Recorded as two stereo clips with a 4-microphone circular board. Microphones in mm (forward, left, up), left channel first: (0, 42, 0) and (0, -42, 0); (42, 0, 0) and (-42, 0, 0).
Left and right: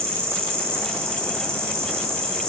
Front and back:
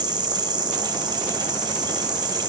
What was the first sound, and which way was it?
An insect, 150° right.